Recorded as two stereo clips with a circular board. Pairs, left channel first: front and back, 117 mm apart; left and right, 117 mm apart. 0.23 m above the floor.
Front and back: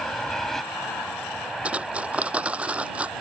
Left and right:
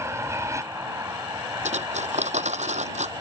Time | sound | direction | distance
0.0 | an aircraft | 80° right | ?
1.6 | cutlery clinking | 100° right | ?